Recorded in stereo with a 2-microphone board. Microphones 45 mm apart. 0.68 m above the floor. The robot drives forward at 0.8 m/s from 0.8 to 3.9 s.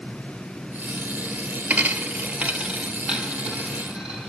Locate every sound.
1.7 s a dropped coin: 40° right (ahead or behind), 0.8 m; by 4.3 s 15° right (ahead or behind), 1.8 m